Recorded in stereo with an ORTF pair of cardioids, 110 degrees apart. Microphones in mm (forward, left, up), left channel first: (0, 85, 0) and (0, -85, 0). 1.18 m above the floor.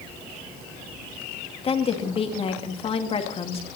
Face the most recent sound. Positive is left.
turn(degrees=35)